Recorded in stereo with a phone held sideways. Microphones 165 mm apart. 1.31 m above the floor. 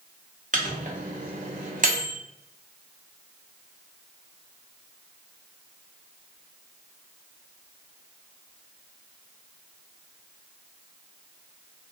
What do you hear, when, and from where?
0.5 s a microwave: 50° right (ahead or behind), 0.6 m